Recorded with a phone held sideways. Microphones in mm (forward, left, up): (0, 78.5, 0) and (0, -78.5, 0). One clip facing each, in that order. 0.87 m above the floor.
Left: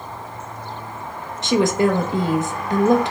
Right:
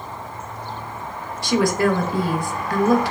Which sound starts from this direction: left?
A woman speaking, at 1.4 s.